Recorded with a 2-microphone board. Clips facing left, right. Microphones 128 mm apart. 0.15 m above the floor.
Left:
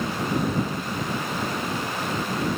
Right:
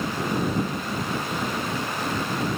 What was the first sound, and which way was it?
Only background noise.